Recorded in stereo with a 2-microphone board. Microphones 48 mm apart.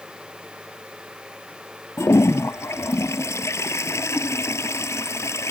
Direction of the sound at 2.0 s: 75° left (ahead or behind).